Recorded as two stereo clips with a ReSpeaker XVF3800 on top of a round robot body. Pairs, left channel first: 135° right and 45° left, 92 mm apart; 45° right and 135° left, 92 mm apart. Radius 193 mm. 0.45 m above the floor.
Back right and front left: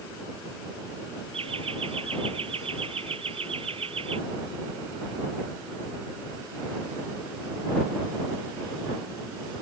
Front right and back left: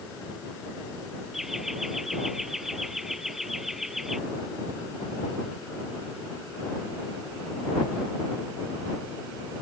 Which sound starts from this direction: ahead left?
Laughter, at 1.3 s.